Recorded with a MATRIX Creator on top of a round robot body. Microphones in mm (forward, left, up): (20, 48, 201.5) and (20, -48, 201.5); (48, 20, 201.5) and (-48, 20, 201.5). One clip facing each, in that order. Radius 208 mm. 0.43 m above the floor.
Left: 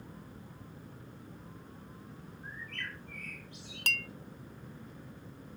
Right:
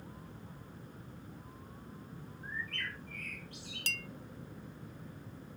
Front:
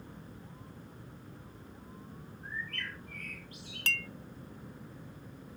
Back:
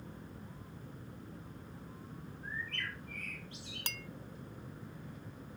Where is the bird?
115° right, 10 m.